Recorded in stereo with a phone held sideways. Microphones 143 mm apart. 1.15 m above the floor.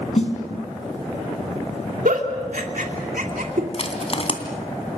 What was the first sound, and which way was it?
A snare drum, 50° left (ahead or behind).